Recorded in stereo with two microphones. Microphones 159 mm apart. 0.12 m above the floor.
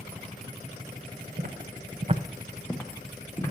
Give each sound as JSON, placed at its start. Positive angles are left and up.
{"t": 1.4, "sound": "footsteps", "side_deg": -65, "distance_m": 1.0}